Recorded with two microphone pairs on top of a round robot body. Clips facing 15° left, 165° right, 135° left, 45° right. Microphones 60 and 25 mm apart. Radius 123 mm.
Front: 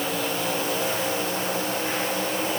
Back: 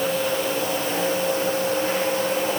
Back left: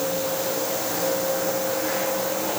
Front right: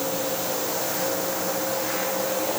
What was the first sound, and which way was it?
Only background noise.